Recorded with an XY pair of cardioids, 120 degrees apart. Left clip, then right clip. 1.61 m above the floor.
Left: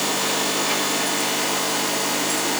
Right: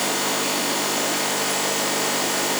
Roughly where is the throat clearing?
I don't hear throat clearing.